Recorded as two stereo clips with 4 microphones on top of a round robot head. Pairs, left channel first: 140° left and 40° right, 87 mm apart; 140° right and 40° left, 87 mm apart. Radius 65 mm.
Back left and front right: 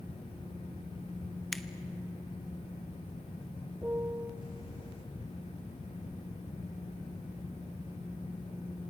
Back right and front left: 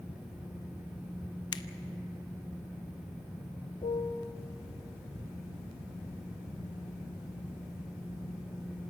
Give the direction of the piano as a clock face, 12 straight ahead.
4 o'clock.